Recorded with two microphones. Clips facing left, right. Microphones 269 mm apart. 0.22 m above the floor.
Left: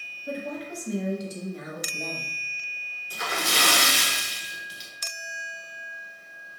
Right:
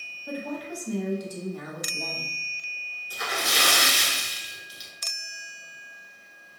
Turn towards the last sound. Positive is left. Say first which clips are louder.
# left 1 dB
turn(degrees=30)  # may be behind; listen again after turning